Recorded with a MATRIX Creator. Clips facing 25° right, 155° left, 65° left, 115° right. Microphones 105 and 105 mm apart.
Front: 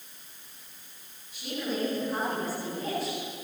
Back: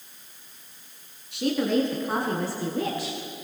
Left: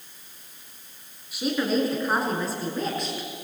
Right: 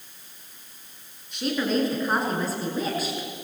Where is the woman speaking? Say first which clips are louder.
Back 10 dB, even; 150° left, 7 m; by 3.3 s 165° left, 8 m.